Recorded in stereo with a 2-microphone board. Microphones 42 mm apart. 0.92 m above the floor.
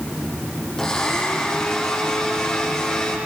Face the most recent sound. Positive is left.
turn(degrees=20)  # may be behind; listen again after turning